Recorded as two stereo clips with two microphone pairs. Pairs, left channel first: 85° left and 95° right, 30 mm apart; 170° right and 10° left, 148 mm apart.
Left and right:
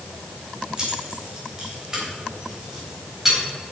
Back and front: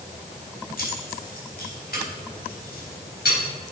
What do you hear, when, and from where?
0.8 s keys jangling: 155° right, 2.5 m; by 3.4 s 170° right, 4 m